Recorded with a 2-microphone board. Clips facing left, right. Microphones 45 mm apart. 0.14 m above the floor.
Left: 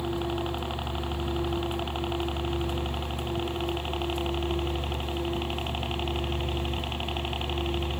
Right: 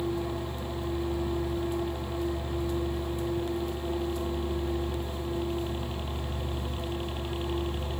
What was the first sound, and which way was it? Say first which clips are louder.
A helicopter: left 2 dB; 70° left (ahead or behind).